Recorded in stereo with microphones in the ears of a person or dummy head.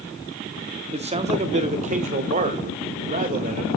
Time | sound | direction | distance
0.9 | a man speaking | 30° right (ahead or behind) | 0.8 m